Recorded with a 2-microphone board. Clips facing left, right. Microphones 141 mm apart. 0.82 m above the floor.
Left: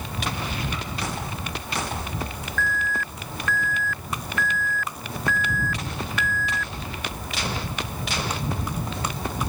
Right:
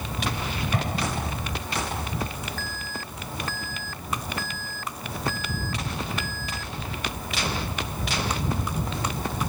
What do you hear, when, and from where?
0.7 s an explosion: 55° right (ahead or behind)
2.6 s an alarm: 35° right (ahead or behind)